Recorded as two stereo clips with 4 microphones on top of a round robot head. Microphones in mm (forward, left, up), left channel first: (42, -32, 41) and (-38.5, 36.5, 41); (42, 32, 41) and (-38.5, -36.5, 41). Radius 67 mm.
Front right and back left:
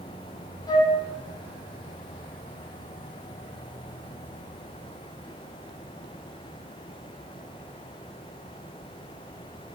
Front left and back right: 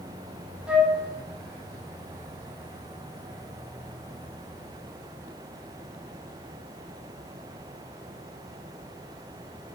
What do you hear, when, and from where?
0.7 s a flute: 60° right, 1.5 m